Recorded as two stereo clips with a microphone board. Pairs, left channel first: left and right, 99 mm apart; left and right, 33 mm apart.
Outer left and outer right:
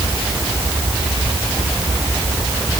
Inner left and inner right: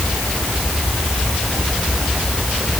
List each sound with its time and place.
Only background noise.